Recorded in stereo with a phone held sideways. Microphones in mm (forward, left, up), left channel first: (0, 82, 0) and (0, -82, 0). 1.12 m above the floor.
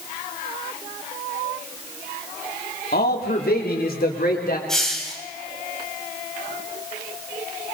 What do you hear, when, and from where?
2.9 s a man speaking: 70° left (ahead or behind), 3 m; by 4.6 s 65° left (ahead or behind), 4.5 m
4.7 s a hiss: 5° left (ahead or behind), 4 m